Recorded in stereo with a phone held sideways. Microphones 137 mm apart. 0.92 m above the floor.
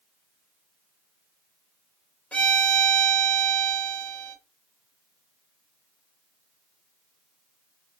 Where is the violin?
10° left (ahead or behind), 0.9 m.